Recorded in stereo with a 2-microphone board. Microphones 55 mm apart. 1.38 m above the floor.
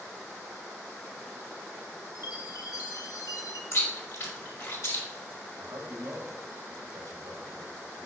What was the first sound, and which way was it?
A chime, 80° left.